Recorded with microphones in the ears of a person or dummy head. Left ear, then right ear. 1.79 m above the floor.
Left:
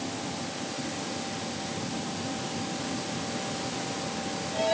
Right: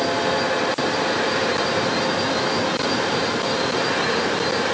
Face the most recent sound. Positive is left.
No sound to turn to.